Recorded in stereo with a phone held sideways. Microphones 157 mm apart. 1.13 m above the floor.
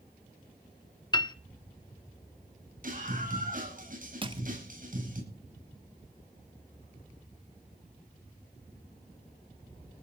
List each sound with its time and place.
1.1 s a piano: 25° left (ahead or behind), 0.7 m
2.8 s a scream: 60° right (ahead or behind), 9 m
4.2 s crushing: 30° right (ahead or behind), 0.9 m